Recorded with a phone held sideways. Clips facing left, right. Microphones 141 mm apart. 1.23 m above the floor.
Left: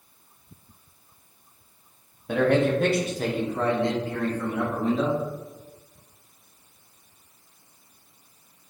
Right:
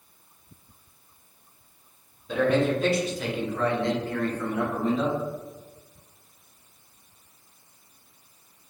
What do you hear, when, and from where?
2.3 s a man speaking: 55° left (ahead or behind), 1.0 m; by 5.2 s centre (ahead or behind), 1.7 m